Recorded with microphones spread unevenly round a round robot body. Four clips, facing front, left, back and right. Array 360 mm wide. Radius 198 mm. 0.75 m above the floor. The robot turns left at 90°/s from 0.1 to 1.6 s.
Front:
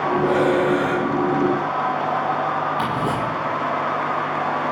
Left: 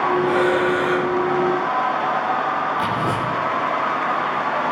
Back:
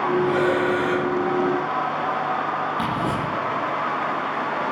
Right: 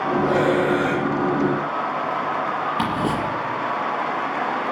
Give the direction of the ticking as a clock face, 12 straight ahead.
4 o'clock.